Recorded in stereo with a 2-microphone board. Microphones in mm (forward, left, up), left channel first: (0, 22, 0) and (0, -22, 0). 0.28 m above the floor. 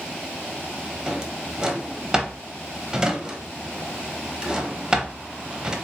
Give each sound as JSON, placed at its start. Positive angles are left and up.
{"t": 1.1, "sound": "a drawer", "side_deg": -15, "distance_m": 0.7}